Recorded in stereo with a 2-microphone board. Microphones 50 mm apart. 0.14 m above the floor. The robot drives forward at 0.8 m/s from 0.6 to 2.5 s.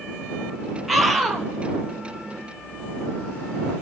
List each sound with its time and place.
0.9 s a scream: centre (ahead or behind), 2.5 m